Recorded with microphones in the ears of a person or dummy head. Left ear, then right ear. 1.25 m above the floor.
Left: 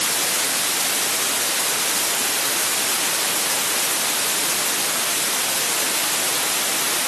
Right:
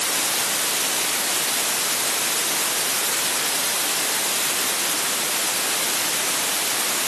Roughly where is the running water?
No running water in this recording.